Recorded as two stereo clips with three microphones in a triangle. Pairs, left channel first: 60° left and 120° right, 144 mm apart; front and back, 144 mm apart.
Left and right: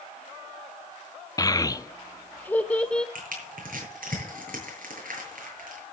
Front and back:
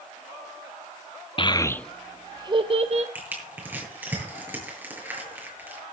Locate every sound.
1.4 s a child speaking: 15° left, 0.6 m; by 3.0 s 145° left, 1.0 m
3.1 s crushing: 105° right, 8 m